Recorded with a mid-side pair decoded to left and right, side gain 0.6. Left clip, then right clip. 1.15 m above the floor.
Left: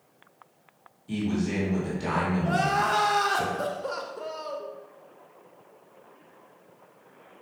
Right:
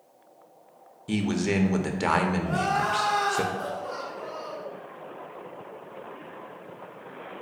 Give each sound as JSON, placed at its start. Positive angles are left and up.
{"t": 1.1, "sound": "a man speaking", "azimuth_deg": -50, "distance_m": 0.6}
{"t": 2.4, "sound": "crying", "azimuth_deg": 45, "distance_m": 0.7}